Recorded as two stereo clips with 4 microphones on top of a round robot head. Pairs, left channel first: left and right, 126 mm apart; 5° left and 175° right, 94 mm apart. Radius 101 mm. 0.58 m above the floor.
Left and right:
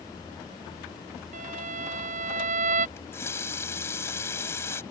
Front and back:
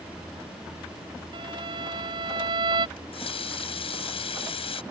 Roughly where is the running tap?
Ahead.